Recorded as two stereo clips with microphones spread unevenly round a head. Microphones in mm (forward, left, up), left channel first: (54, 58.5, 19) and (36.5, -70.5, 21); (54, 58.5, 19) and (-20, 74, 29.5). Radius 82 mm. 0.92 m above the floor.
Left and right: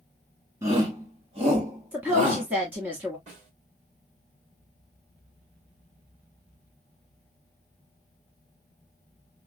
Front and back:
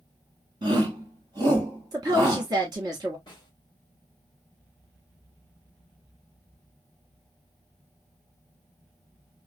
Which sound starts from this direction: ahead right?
A snare drum, at 3.3 s.